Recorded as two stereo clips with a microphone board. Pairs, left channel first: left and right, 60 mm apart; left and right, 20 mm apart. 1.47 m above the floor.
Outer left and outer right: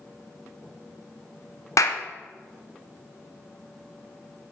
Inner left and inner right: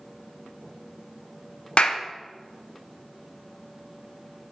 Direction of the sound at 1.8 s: 65° left (ahead or behind).